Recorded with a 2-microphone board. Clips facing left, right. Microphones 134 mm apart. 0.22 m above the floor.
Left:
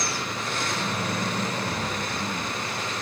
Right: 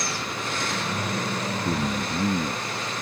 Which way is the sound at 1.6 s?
45° right (ahead or behind).